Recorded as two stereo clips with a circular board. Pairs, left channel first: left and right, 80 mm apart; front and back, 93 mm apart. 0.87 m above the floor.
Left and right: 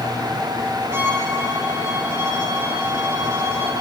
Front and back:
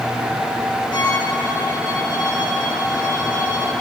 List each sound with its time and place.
0.9 s a violin: 35° right, 8 m